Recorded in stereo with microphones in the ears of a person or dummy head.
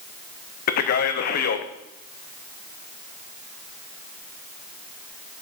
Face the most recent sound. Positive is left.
turn(degrees=50)  # may be behind; listen again after turning